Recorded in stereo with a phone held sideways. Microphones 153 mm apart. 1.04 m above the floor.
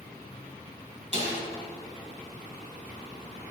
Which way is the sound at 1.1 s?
45° right (ahead or behind).